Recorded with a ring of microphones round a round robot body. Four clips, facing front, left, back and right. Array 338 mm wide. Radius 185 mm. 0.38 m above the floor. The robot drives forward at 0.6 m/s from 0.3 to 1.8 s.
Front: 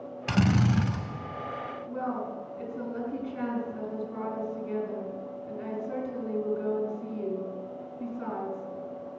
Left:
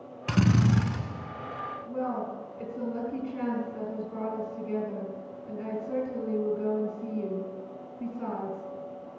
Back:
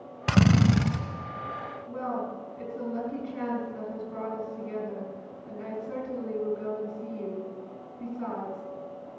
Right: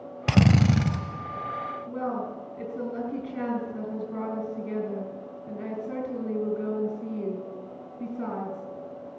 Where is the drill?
115° right, 1.0 m; by 1.0 s 135° right, 1.2 m.